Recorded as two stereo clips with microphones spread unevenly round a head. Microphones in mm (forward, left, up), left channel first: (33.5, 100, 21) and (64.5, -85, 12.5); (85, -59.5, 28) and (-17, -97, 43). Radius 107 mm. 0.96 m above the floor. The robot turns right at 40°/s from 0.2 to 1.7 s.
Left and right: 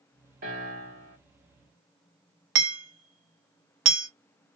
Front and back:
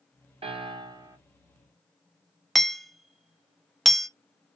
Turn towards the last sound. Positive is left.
turn(degrees=-70)